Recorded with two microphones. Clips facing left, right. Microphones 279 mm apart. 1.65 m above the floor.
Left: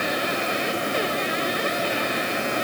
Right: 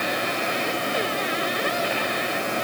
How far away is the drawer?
No drawer in this recording.